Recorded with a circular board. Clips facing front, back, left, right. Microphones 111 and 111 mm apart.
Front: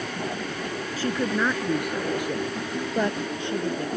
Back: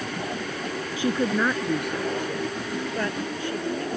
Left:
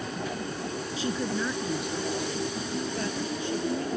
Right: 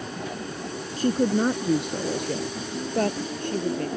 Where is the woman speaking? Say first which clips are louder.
Back 2 dB, right 9 dB; 110° right; by 3.9 s 60° right.